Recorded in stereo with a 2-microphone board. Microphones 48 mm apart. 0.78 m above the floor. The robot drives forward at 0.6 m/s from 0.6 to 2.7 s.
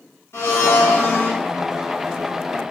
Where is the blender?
60° left (ahead or behind), 1.7 m; by 1.4 s 70° left (ahead or behind), 1.6 m.